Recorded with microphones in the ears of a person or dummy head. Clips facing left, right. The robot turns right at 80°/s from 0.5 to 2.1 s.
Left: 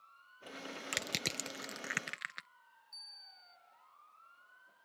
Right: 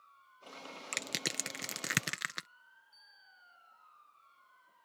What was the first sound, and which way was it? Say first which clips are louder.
Crushing: right 2 dB; 5° left (ahead or behind).